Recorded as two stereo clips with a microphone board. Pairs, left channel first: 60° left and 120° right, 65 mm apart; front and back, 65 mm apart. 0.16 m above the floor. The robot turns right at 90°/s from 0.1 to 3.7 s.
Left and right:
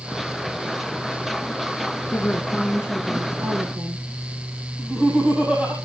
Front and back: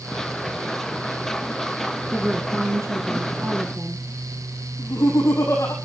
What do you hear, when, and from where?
2.1 s a woman speaking: 105° left, 1.5 m; by 4.1 s 115° right, 1.5 m
4.8 s laughter: 45° right, 6 m